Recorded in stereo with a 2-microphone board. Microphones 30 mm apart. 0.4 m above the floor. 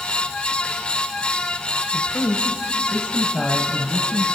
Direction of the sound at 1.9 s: 40° left (ahead or behind).